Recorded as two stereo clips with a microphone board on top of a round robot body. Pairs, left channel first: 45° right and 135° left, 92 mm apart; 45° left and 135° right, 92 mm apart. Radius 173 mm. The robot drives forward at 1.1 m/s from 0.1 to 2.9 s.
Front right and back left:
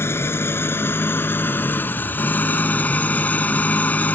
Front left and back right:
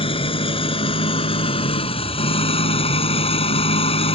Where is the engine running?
20° left; by 4.2 s 30° left.